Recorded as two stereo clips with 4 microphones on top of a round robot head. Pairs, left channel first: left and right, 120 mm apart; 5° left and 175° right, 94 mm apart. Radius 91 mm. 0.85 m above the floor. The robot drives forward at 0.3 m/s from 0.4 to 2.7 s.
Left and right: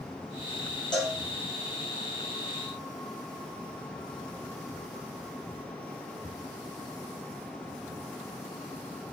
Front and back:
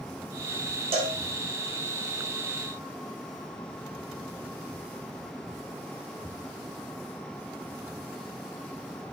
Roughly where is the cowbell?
Behind.